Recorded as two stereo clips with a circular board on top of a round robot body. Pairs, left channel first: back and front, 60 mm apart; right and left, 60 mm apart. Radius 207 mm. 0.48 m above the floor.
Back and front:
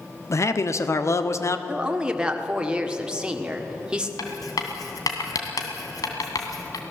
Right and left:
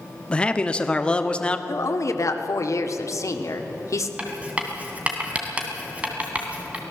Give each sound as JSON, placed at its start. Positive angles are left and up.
{"t": 0.3, "sound": "a man speaking", "azimuth_deg": -160, "distance_m": 1.5}
{"t": 1.7, "sound": "a woman speaking", "azimuth_deg": -75, "distance_m": 1.9}
{"t": 4.2, "sound": "writing", "azimuth_deg": 160, "distance_m": 2.0}